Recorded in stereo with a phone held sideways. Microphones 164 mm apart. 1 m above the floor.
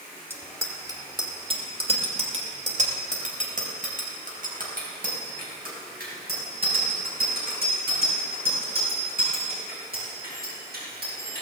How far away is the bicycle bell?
About 2 m.